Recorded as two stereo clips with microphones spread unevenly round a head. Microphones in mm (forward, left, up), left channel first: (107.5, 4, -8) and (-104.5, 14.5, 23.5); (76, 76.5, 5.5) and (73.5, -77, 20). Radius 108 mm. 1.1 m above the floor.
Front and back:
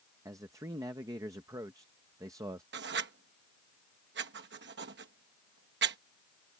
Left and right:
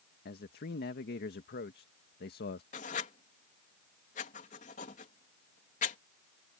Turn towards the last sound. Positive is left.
turn(degrees=135)